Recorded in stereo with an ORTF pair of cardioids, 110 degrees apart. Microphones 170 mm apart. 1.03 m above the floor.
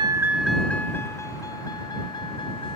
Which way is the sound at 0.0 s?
25° right.